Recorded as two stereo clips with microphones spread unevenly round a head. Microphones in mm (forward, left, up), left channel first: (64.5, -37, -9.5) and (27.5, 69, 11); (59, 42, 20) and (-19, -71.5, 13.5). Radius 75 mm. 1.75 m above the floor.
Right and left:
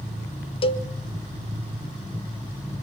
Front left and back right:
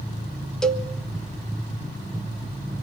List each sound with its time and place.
0.6 s a cowbell: 30° right, 1.3 m